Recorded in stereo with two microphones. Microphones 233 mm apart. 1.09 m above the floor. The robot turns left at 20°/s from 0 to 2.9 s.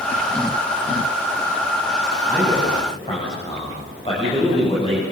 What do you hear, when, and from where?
2.3 s a man speaking: 10° left (ahead or behind), 9 m; by 5.0 s 25° left (ahead or behind), 9 m